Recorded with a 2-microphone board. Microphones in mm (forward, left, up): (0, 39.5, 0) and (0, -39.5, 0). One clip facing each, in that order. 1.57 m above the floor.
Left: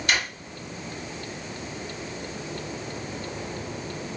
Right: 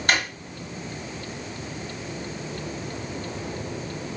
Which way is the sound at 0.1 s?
45° right (ahead or behind).